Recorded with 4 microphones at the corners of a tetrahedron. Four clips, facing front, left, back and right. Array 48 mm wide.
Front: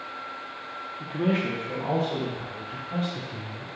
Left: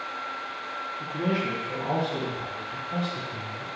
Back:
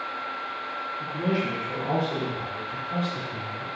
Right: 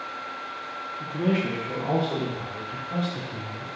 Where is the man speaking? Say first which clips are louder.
Right 3 dB, front 2 dB; 20° left, 0.7 m; by 3.7 s 95° right, 3 m.